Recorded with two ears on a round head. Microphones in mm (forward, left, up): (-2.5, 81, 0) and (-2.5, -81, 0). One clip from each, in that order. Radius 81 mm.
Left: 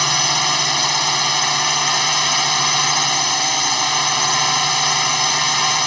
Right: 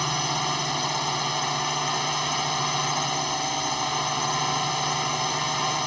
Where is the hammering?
No hammering in this recording.